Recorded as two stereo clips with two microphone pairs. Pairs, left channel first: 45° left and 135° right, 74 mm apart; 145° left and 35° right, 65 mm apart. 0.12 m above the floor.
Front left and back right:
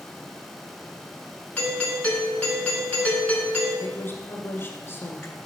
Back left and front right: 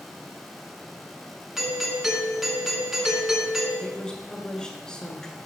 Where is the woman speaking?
75° left, 1.4 m.